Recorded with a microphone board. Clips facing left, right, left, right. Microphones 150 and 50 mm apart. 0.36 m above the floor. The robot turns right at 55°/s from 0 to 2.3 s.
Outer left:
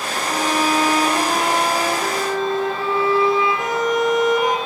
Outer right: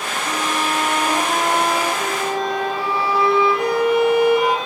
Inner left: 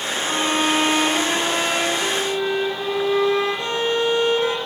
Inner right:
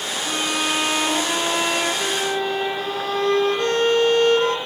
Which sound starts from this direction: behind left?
A violin, at 0.2 s.